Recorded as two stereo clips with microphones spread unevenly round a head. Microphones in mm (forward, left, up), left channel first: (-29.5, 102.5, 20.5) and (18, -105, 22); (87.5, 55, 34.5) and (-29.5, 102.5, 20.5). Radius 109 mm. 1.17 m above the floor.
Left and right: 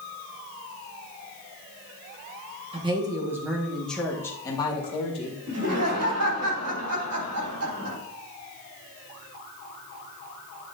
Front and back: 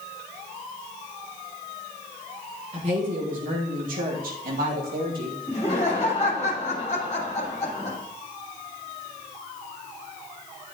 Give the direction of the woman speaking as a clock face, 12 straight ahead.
5 o'clock.